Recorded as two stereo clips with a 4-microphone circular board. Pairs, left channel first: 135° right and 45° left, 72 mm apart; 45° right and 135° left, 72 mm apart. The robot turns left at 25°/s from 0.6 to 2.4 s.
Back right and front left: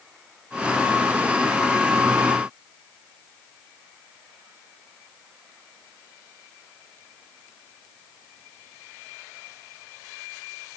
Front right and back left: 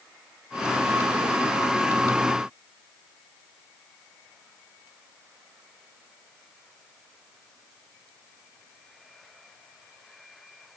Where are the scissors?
I don't hear scissors.